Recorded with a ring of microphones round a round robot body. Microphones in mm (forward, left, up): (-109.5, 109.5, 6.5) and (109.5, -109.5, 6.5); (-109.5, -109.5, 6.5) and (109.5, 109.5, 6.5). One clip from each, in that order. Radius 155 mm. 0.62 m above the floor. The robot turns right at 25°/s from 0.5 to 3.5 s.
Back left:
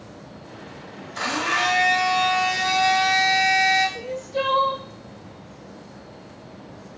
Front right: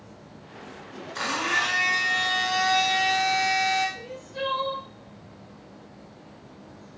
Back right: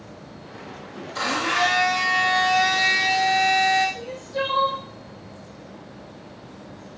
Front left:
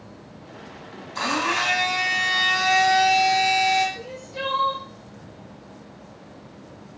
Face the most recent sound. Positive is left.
turn(degrees=140)